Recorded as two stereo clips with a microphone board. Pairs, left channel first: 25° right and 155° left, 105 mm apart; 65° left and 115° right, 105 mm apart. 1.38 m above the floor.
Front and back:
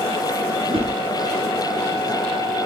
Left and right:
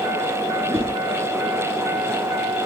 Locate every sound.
0.6 s a whoosh: straight behind, 8 m